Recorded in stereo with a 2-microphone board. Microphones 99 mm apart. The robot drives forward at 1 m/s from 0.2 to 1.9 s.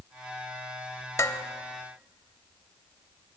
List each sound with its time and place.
1.2 s dishes clattering: 30° left (ahead or behind), 0.6 m; by 1.4 s 35° left (ahead or behind), 0.6 m